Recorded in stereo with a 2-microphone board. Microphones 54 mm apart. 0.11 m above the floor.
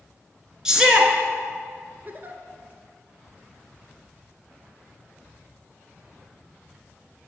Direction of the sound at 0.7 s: 15° right (ahead or behind).